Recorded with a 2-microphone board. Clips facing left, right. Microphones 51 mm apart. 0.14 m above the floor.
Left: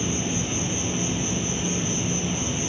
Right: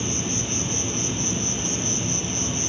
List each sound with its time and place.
0.0 s an insect: 15° left (ahead or behind), 1.1 m